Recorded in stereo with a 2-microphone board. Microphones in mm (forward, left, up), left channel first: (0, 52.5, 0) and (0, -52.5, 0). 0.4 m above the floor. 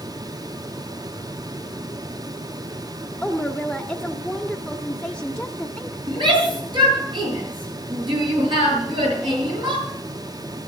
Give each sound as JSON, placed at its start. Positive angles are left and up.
{"t": 3.2, "sound": "a woman speaking", "side_deg": 10, "distance_m": 0.9}
{"t": 6.1, "sound": "a shout", "side_deg": -50, "distance_m": 7.0}